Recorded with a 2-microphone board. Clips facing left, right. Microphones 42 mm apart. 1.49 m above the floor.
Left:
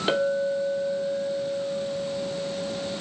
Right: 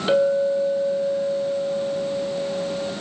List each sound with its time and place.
0.1 s a clink: 10° left (ahead or behind), 2.5 m